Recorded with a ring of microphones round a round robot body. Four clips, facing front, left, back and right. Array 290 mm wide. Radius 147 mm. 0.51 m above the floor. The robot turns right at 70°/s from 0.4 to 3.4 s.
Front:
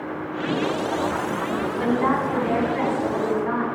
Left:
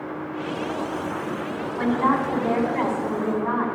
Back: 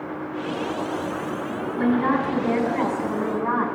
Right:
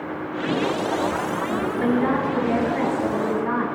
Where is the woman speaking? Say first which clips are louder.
Left 1 dB, back 2 dB; 45° left, 4.5 m; by 3.7 s 160° left, 4.5 m.